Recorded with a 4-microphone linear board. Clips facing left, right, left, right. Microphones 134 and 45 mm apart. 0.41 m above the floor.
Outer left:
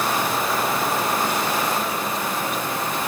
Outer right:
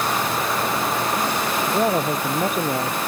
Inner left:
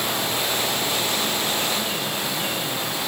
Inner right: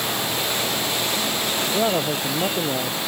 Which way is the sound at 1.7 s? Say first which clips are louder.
Outer right 5 dB, inner right 5 dB; 50° right (ahead or behind).